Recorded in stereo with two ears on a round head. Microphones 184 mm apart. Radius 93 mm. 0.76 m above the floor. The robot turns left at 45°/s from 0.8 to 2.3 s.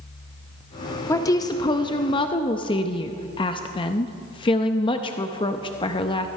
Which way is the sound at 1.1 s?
15° left (ahead or behind).